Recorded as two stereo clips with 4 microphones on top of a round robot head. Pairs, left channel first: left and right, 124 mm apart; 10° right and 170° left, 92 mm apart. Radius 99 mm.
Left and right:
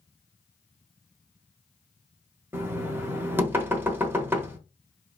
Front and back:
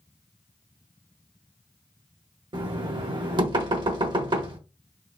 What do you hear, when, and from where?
2.5 s knocking: 160° right, 1.1 m